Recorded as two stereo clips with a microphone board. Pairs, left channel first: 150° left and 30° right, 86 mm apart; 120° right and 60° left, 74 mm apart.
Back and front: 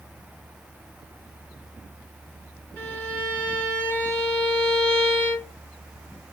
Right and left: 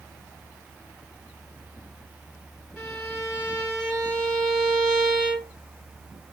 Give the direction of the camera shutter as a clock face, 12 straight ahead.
No camera shutter in this recording.